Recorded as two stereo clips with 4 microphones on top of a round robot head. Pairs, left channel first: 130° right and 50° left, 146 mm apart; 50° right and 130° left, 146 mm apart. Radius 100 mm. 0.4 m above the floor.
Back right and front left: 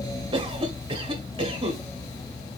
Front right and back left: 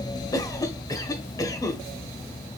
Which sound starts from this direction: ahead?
A cough, at 0.3 s.